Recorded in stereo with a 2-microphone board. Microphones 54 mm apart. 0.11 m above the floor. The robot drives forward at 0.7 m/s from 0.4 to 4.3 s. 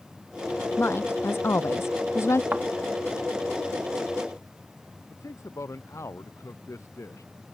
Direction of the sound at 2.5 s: 30° right (ahead or behind).